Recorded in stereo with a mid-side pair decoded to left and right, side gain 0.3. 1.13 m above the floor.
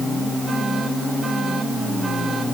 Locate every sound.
Only background noise.